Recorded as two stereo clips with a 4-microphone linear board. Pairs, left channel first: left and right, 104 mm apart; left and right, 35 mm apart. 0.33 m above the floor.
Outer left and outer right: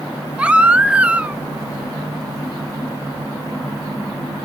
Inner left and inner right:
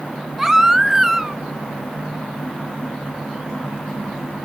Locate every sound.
0.4 s a baby crying: 15° right (ahead or behind), 0.9 m